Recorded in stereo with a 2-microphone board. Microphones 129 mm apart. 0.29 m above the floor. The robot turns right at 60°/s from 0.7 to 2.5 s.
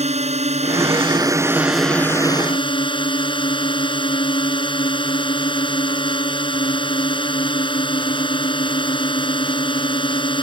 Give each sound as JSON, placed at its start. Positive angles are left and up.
{"t": 0.0, "sound": "a drone", "azimuth_deg": -65}